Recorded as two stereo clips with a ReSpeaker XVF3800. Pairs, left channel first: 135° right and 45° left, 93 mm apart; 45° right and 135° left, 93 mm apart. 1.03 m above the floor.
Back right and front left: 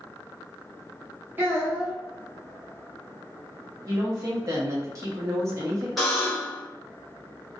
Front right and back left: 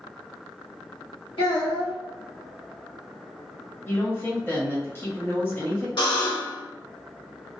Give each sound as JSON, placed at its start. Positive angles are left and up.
{"t": 1.4, "sound": "a child speaking", "azimuth_deg": -20, "distance_m": 1.5}
{"t": 3.9, "sound": "a woman speaking", "azimuth_deg": 10, "distance_m": 0.9}
{"t": 6.0, "sound": "a buzzer", "azimuth_deg": -45, "distance_m": 1.1}